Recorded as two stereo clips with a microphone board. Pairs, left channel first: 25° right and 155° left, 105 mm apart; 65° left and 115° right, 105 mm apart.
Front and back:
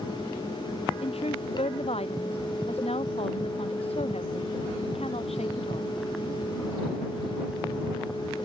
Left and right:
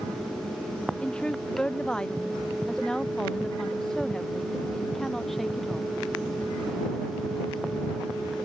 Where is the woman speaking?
15° right; by 5.9 s 20° right.